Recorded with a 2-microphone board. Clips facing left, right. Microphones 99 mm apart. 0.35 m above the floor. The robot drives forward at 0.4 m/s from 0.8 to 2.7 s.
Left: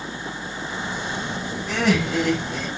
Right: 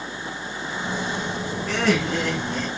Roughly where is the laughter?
Centre.